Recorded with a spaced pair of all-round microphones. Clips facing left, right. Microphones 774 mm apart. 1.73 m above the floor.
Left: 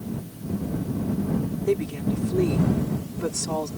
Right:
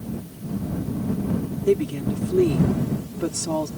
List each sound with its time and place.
1.7 s a woman speaking: 60° right (ahead or behind)